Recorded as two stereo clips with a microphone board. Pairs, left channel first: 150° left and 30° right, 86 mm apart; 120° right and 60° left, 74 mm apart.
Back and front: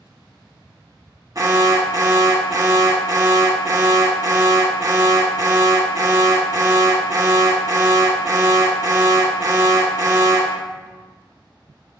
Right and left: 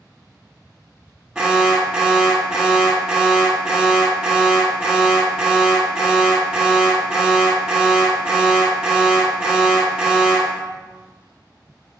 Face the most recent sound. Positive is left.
turn(degrees=-20)